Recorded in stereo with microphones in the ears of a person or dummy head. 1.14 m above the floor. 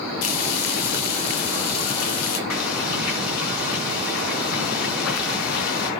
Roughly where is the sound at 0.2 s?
Left.